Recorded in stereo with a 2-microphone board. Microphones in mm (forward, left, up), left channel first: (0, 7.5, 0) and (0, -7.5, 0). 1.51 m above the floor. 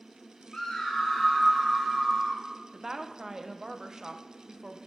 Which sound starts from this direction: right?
A woman speaking, at 2.7 s.